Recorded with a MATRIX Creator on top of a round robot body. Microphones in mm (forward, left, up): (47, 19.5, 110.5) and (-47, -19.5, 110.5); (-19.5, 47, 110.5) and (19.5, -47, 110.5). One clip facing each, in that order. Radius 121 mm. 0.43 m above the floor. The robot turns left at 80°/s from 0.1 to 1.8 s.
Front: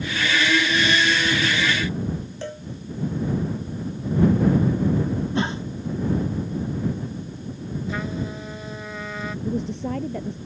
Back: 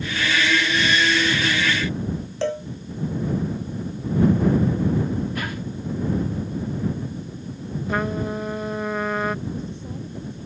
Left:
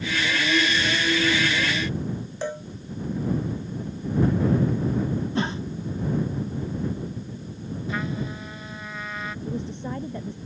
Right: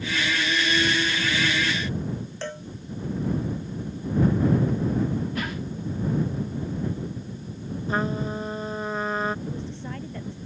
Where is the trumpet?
120° right.